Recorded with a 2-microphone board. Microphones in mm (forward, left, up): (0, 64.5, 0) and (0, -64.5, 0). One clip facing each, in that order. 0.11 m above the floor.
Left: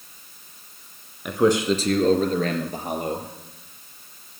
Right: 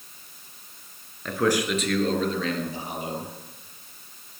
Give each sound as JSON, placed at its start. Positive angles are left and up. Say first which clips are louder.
{"t": 1.2, "sound": "a man speaking", "louder": "left 4 dB", "side_deg": 15, "distance_m": 1.8}